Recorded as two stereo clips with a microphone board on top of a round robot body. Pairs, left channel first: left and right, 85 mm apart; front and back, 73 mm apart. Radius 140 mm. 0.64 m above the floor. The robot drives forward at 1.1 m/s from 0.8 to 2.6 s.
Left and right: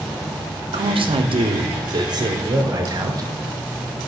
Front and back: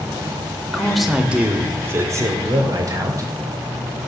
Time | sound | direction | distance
0.7 | a man speaking | 80° right | 1.7 m